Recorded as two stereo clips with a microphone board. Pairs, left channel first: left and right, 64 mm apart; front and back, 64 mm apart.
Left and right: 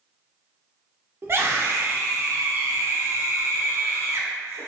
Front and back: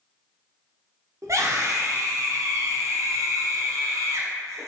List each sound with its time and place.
1.2 s a scream: 140° right, 0.7 m